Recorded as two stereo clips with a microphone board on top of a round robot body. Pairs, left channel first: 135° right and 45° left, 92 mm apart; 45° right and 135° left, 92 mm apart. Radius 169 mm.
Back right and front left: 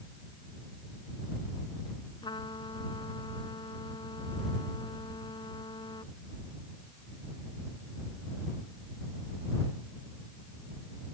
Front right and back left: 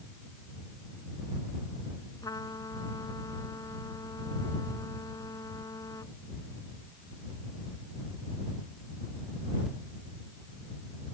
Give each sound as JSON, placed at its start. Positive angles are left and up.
{"t": 2.2, "sound": "a trumpet", "azimuth_deg": -100}